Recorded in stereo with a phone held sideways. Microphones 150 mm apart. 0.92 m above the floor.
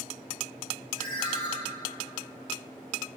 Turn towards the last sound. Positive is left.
turn(degrees=35)  # may be behind; listen again after turning